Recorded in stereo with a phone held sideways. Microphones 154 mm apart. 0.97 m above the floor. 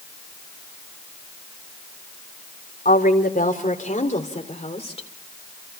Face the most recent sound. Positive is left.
turn(degrees=40)  # may be behind; listen again after turning